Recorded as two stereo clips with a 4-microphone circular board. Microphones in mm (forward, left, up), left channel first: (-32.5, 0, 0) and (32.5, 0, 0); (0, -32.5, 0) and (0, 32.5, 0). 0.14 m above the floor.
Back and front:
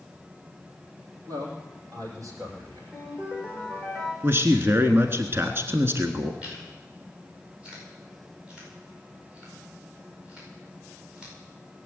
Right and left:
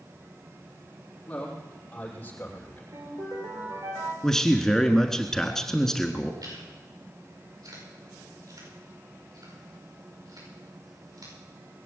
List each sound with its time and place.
1.3 s a man speaking: 15° right, 7 m; by 2.8 s 20° right, 7.5 m
2.9 s a ringtone: 75° left, 7.5 m
4.2 s a man speaking: 10° right, 1.3 m
6.4 s chewing: 75° left, 9.5 m